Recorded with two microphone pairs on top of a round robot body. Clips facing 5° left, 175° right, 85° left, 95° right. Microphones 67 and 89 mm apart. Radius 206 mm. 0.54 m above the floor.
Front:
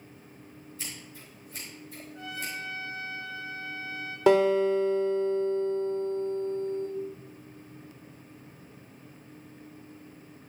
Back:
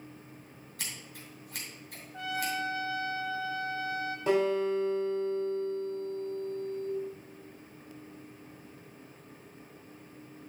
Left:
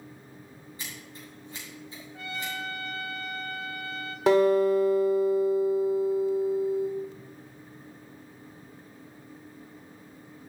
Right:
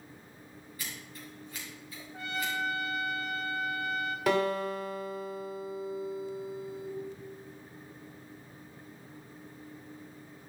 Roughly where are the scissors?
Behind left.